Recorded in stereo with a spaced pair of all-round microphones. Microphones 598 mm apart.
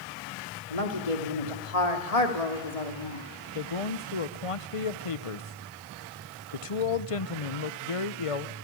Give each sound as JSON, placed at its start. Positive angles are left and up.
{"t": 0.7, "sound": "a woman speaking", "side_deg": 80, "distance_m": 3.0}
{"t": 3.5, "sound": "a man speaking", "side_deg": 60, "distance_m": 1.0}